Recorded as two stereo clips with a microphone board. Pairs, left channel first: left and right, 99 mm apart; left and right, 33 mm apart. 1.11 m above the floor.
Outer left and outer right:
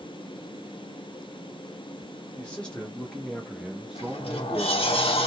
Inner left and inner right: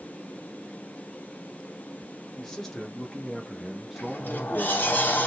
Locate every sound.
2.4 s a man speaking: 10° left (ahead or behind), 1.3 m; by 5.0 s 15° right (ahead or behind), 1.1 m
4.0 s a sliding door: 70° left (ahead or behind), 0.7 m